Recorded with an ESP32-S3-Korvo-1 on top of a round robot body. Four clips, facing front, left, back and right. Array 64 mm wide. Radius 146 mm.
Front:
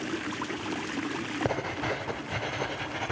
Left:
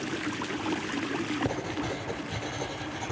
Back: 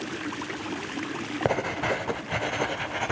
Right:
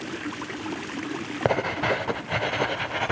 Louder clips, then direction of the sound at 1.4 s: Right 8 dB, back 6 dB; 110° right.